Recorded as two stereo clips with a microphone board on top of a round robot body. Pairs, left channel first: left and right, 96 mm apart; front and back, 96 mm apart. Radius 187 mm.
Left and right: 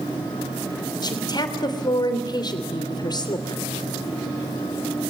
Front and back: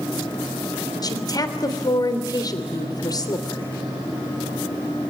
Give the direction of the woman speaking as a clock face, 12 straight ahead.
10 o'clock.